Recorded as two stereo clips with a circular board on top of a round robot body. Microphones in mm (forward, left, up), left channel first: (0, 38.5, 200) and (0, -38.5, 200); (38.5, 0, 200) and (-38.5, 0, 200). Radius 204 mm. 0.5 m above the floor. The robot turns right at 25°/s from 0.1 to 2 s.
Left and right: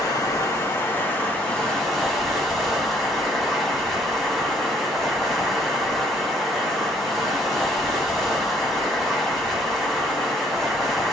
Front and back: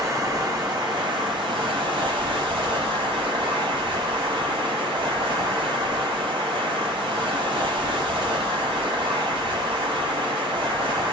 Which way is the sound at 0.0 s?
130° left.